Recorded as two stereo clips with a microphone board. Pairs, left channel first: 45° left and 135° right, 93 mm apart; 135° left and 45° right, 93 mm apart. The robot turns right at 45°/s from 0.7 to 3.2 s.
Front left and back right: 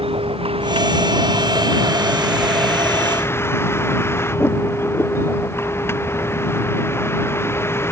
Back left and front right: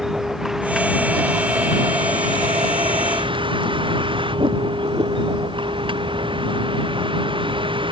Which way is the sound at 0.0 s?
130° right.